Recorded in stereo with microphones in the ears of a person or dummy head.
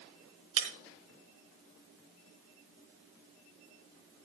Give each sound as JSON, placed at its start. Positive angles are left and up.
{"t": 0.6, "sound": "breaking glass", "side_deg": -40, "distance_m": 4.0}